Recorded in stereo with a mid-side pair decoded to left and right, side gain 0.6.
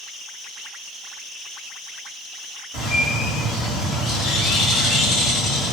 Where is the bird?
70° left, 1.3 m.